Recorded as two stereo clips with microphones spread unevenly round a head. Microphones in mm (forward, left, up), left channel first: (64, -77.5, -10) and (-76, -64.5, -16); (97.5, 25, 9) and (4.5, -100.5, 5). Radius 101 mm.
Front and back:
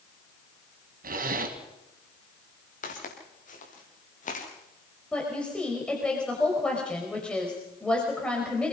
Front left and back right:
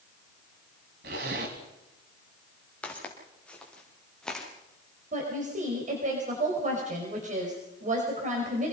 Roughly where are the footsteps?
Ahead right.